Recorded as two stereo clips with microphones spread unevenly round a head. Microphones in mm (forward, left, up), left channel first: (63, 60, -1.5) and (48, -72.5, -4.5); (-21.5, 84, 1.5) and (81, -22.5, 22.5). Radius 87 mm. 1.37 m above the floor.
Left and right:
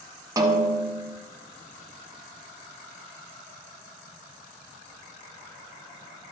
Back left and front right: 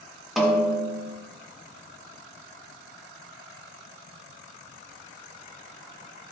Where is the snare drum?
115° right, 0.9 m.